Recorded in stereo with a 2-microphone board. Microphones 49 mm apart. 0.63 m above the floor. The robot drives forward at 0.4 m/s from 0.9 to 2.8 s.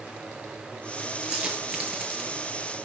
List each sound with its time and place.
1.2 s a dropped coin: 20° right (ahead or behind), 5 m